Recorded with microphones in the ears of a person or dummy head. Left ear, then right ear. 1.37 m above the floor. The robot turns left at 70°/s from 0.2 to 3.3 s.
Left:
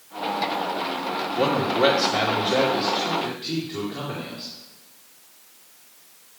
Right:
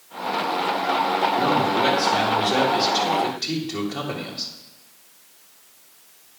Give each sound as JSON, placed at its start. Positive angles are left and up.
{"t": 1.4, "sound": "a man speaking", "azimuth_deg": 55, "distance_m": 2.0}